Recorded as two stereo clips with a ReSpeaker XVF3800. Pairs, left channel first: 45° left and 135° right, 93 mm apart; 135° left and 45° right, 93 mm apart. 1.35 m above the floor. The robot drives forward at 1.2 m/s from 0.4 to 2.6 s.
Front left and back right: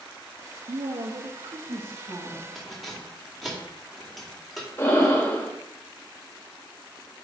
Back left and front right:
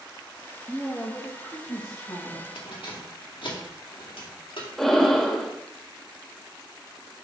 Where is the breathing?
50° left, 1.1 m.